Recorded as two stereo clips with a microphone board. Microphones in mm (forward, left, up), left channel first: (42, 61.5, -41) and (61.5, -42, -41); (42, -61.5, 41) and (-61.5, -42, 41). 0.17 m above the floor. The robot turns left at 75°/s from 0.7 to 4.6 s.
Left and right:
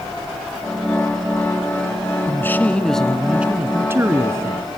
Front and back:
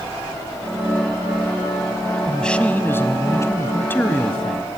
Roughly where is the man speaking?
Left.